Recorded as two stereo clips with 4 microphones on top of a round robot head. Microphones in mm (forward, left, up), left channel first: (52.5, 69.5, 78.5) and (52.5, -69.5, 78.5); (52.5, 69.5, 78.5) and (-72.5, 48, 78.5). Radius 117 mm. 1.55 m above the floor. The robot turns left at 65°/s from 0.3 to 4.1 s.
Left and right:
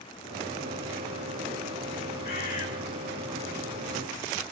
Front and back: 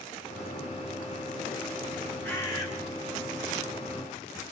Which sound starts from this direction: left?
A bird, at 2.2 s.